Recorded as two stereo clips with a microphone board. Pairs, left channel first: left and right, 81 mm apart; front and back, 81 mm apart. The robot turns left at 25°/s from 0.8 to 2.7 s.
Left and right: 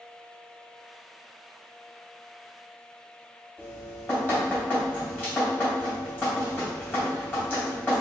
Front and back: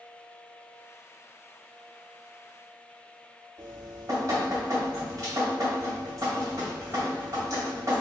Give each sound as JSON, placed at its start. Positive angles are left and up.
{"t": 3.6, "sound": "dripping", "azimuth_deg": 145, "distance_m": 1.9}